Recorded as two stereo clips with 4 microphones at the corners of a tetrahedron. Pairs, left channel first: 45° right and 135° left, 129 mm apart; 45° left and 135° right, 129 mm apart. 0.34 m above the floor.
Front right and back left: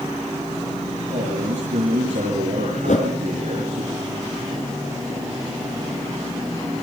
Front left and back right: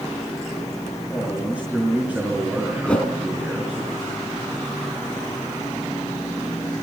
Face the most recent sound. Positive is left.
turn(degrees=-35)